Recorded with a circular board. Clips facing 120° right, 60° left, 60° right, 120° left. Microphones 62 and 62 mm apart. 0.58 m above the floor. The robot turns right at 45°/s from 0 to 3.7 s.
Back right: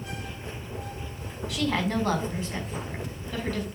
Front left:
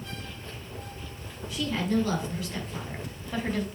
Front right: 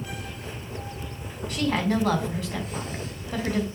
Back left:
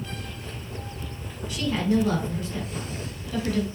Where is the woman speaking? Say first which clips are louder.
Back right 1 dB, even; 95° right, 4.5 m; by 3.7 s straight ahead, 4.5 m.